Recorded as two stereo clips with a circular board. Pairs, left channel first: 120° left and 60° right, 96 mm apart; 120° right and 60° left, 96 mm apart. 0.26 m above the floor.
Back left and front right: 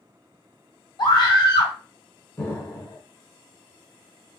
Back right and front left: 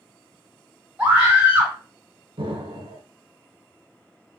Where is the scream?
130° left, 1.8 m.